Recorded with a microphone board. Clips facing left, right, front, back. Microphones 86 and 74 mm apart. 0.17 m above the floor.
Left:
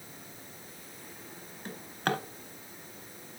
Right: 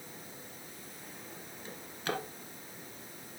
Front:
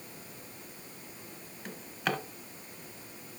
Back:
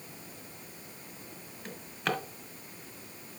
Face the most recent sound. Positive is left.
turn(degrees=90)